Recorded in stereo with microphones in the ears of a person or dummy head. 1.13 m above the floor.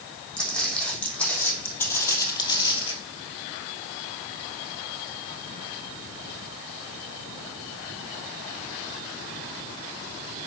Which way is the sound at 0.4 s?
5° left (ahead or behind).